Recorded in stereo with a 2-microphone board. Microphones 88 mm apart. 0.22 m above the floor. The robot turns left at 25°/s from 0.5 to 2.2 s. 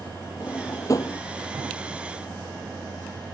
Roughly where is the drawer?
Left.